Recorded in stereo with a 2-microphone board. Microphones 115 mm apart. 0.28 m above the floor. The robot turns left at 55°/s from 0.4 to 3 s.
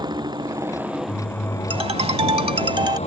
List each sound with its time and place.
0.0 s a motorcycle: 140° right; by 3.1 s 75° left
1.7 s a ringtone: 65° right; by 3.0 s 135° right